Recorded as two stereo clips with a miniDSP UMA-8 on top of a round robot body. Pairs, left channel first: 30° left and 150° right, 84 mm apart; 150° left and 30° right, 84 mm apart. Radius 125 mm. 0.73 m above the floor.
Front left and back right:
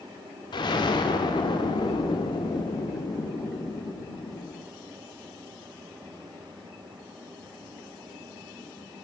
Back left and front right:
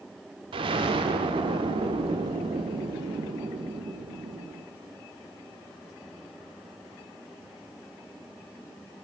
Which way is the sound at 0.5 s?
5° right.